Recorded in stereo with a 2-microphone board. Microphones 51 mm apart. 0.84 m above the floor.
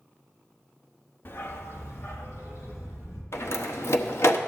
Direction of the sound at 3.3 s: 60° left (ahead or behind).